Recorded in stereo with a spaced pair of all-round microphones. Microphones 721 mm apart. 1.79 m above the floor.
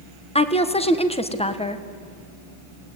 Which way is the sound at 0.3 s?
10° left (ahead or behind).